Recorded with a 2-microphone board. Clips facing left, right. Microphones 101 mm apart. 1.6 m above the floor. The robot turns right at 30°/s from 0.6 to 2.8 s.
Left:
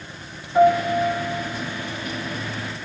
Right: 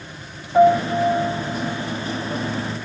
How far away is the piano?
About 5 m.